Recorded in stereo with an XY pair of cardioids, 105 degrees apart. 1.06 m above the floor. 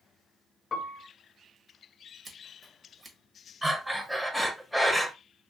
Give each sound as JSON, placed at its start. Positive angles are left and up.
{"t": 0.7, "sound": "a piano", "azimuth_deg": 40, "distance_m": 0.6}
{"t": 2.2, "sound": "scissors", "azimuth_deg": -30, "distance_m": 1.0}
{"t": 3.6, "sound": "breathing", "azimuth_deg": -5, "distance_m": 0.9}